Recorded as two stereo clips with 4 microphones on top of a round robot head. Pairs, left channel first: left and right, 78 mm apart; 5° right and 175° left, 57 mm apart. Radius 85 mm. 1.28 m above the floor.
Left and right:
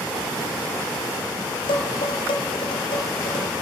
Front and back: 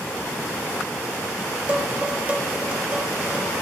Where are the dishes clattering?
110° left, 1.7 m.